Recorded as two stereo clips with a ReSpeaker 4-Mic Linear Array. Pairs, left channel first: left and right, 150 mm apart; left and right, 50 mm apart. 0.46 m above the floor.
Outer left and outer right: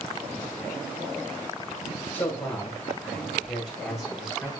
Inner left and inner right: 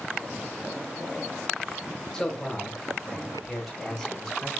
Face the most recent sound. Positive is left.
turn(degrees=-5)  # may be behind; listen again after turning